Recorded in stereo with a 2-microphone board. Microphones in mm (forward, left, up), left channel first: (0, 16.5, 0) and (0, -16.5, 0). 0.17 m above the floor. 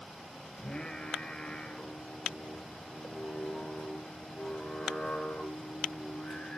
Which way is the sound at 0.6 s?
25° left (ahead or behind).